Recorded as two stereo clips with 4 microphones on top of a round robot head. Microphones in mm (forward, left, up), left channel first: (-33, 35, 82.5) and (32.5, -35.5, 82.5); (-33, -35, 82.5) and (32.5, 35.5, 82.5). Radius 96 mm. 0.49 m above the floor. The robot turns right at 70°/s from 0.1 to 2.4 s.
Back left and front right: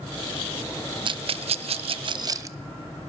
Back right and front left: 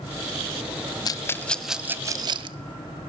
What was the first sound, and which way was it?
A rattle, 85° right.